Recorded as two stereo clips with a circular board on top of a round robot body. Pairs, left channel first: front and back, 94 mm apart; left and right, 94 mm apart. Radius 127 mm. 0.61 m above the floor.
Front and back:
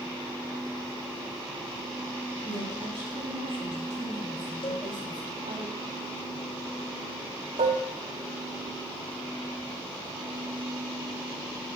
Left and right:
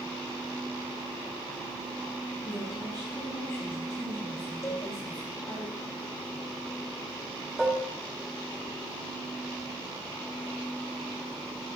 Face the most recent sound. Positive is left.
turn(degrees=-175)